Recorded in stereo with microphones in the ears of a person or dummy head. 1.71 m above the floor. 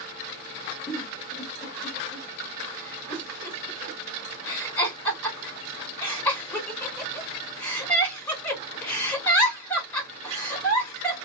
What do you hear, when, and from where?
0.9 s a giggle: 10° left (ahead or behind), 1.7 m